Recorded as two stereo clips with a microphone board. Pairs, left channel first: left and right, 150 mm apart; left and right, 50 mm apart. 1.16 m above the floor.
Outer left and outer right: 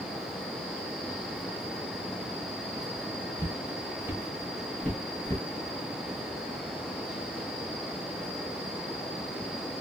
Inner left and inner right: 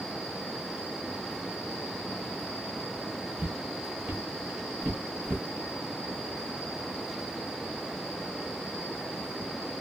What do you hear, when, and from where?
3.4 s footsteps: 25° right (ahead or behind), 1.7 m; by 5.4 s 20° left (ahead or behind), 1.2 m